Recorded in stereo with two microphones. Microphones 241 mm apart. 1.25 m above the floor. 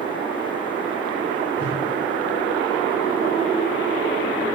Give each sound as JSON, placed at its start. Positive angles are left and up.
{"t": 1.6, "sound": "a whoosh", "side_deg": -80, "distance_m": 7.0}